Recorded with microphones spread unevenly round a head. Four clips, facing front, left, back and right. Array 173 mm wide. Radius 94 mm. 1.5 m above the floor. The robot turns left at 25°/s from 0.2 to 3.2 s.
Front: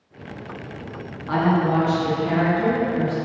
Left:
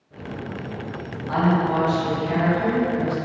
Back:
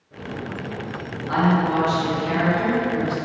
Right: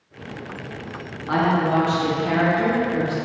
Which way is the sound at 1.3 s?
75° right.